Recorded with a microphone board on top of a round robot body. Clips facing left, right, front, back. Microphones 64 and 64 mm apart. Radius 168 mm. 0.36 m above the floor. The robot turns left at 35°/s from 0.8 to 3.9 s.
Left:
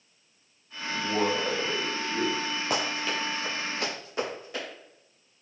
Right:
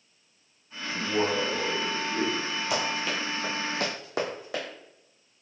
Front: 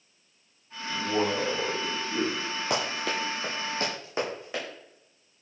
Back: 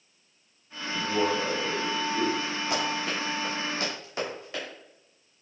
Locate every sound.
0.9 s a man speaking: 70° left, 1.9 m; by 2.4 s 20° left, 1.9 m
2.7 s running footsteps: 40° left, 0.6 m; by 4.7 s 70° right, 1.6 m